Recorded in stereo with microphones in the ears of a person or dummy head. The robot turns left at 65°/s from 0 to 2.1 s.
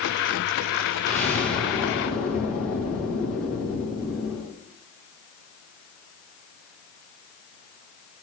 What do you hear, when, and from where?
1.1 s an explosion: 145° left, 2 m; by 4.5 s 80° left, 2 m